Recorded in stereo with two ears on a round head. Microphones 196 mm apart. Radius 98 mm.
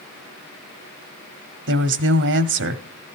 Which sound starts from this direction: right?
A woman speaking, at 1.7 s.